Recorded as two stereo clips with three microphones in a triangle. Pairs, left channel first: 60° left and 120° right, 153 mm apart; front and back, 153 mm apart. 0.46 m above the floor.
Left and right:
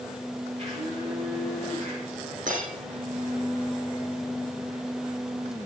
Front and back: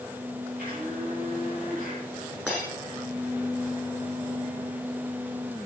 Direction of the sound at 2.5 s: 95° right.